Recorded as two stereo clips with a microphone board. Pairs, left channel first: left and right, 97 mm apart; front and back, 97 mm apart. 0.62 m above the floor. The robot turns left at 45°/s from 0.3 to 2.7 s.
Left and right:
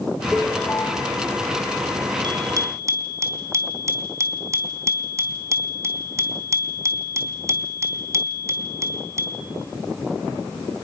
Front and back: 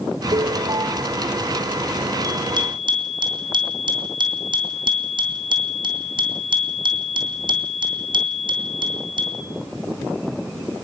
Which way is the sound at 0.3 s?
170° left.